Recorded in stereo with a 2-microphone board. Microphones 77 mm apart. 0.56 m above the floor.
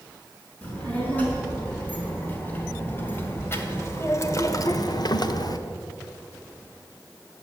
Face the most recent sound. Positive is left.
turn(degrees=50)  # may be behind; listen again after turning